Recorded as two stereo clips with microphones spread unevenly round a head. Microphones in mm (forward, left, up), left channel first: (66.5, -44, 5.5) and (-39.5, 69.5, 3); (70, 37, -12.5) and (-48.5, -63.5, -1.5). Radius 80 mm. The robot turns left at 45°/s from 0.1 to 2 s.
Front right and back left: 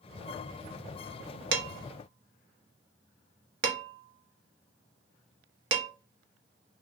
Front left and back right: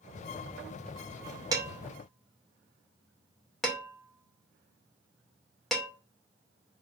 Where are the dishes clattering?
150° left, 0.6 m; by 5.9 s 130° left, 0.6 m.